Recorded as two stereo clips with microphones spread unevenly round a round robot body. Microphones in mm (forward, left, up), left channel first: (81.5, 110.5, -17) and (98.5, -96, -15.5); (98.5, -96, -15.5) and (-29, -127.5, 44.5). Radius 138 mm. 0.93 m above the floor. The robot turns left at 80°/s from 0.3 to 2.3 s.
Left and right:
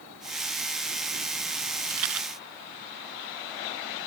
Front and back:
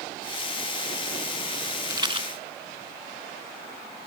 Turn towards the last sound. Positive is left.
turn(degrees=-135)